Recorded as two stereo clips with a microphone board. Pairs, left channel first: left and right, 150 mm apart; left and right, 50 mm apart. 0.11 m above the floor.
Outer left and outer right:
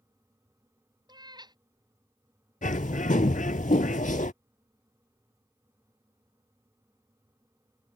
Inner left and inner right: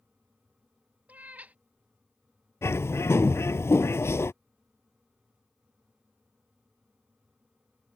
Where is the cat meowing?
30° right (ahead or behind).